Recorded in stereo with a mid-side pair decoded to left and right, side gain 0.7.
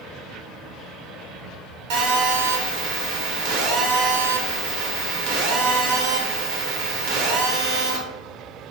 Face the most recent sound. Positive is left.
turn(degrees=-70)